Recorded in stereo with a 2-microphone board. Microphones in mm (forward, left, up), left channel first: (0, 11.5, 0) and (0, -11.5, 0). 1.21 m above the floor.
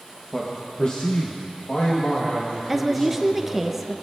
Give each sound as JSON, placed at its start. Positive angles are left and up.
{"t": 0.3, "sound": "a man speaking", "side_deg": 10, "distance_m": 1.1}
{"t": 2.7, "sound": "a woman speaking", "side_deg": -15, "distance_m": 0.6}